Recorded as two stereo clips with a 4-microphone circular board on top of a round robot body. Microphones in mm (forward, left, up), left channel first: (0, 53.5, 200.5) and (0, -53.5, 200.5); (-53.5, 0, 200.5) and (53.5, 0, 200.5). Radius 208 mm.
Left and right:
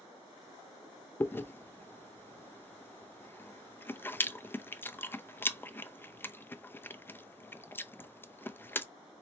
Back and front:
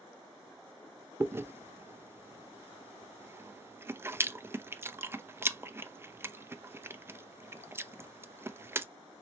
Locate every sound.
1.2 s chewing: 40° left, 0.6 m